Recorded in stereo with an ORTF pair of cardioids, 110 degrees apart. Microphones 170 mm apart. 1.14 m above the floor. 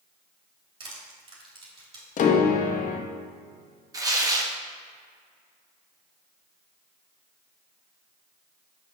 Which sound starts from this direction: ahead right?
Crushing, at 0.8 s.